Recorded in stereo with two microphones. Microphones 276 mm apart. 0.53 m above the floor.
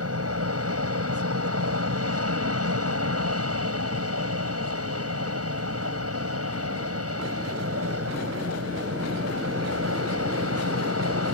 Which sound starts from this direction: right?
An aircraft, at 0.0 s.